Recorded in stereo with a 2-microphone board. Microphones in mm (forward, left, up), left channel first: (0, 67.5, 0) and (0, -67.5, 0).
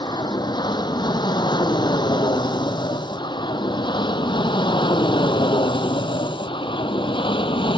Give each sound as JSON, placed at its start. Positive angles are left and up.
{"t": 0.0, "sound": "an aircraft", "side_deg": 30}